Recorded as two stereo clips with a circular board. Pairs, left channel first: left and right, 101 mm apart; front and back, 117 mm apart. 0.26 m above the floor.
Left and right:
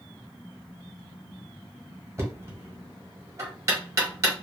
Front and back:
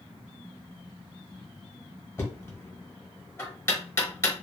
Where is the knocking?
50° right, 1.2 m.